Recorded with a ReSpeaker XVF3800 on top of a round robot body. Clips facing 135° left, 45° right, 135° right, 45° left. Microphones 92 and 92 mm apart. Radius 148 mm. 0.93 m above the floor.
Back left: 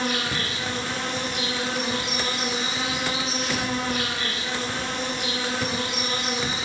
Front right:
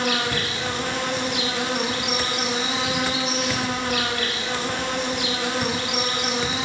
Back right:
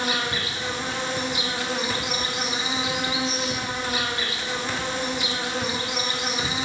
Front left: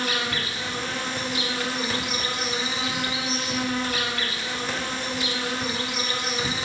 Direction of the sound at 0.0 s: 65° right.